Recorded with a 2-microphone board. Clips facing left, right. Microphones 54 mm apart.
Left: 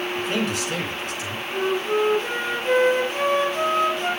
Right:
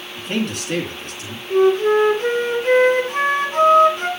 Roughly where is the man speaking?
Right.